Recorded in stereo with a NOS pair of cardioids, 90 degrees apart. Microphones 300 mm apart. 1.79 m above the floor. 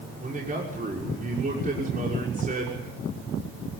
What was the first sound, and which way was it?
A man speaking, 25° right.